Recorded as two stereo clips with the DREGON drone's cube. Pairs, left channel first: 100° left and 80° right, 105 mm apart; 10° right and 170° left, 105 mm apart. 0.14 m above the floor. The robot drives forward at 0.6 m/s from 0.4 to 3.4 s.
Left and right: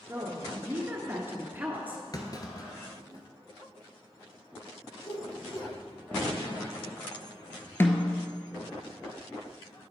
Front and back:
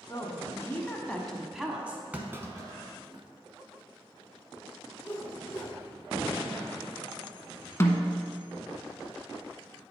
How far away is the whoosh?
About 1.1 m.